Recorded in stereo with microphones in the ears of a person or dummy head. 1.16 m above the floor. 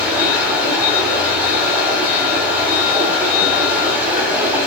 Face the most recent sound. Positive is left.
turn(degrees=-10)  # may be behind; listen again after turning